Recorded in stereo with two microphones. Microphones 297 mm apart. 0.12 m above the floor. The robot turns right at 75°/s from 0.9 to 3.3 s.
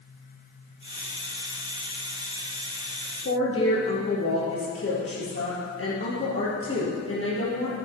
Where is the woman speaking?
50° left (ahead or behind), 3.5 m.